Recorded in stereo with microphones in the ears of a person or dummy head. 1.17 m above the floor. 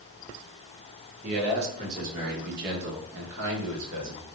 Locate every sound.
1.2 s a man speaking: 35° right (ahead or behind), 1.7 m; by 4.2 s 75° right (ahead or behind), 1.3 m